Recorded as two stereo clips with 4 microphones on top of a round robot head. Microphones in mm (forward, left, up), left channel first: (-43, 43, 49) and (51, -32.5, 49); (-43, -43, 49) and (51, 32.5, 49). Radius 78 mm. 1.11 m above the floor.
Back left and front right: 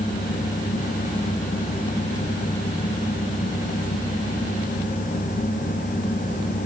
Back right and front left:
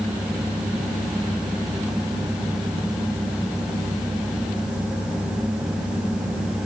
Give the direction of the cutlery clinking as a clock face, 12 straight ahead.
No cutlery clinking in this recording.